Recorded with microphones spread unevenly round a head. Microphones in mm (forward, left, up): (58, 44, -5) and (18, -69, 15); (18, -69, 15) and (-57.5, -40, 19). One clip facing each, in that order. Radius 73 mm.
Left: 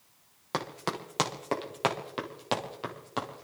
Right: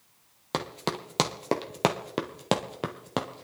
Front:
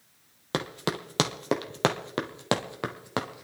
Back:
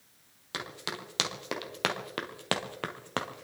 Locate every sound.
0.5 s running footsteps: 50° right, 2 m; by 3.4 s 105° right, 2.5 m